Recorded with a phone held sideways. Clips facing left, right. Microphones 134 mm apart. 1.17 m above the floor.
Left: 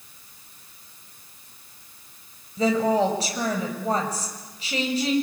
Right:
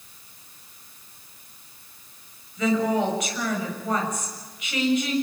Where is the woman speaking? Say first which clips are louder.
Left 2 dB; 30° left (ahead or behind), 6.5 m.